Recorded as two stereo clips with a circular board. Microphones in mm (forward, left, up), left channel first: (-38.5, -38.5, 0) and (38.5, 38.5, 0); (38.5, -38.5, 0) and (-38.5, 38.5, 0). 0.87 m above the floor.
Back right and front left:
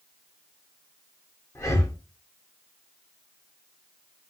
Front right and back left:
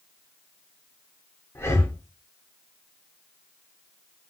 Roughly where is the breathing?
Right.